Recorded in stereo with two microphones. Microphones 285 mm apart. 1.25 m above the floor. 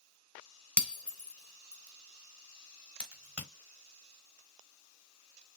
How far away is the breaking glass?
About 1.3 m.